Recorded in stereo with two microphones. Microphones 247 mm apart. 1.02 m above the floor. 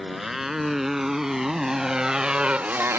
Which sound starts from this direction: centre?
A motorcycle, at 0.0 s.